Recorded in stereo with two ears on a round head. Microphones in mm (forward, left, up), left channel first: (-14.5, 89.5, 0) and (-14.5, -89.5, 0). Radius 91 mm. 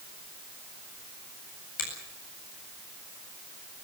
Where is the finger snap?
40° left (ahead or behind), 8.5 m.